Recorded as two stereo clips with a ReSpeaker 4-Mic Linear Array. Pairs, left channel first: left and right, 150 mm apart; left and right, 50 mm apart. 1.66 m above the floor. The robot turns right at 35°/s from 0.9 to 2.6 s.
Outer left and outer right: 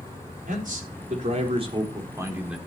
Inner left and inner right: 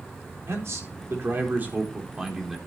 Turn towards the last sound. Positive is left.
turn(degrees=-5)